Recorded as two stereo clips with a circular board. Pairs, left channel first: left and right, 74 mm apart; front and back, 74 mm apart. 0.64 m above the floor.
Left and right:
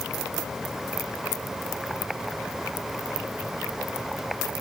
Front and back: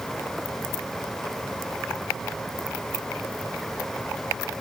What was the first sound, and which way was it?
Only background noise.